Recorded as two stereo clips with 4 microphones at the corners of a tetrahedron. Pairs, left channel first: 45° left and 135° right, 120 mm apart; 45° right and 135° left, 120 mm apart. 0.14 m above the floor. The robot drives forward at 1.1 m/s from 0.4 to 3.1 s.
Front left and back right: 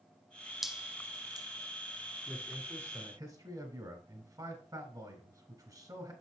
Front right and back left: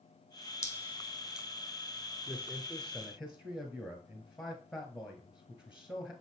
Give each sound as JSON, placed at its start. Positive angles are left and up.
{"t": 0.6, "sound": "dripping", "azimuth_deg": -50, "distance_m": 1.1}
{"t": 2.3, "sound": "a man speaking", "azimuth_deg": -65, "distance_m": 1.4}